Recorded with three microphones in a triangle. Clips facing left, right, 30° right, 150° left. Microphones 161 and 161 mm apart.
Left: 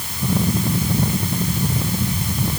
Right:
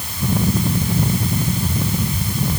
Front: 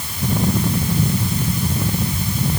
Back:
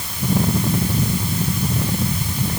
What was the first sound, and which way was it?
Only background noise.